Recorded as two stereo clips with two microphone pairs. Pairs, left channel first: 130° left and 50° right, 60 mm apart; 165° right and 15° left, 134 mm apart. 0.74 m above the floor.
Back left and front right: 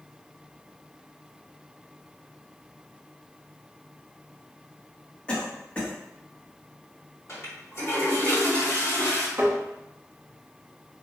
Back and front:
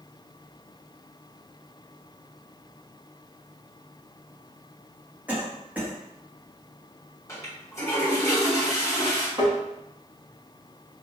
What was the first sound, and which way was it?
A cough, 80° left.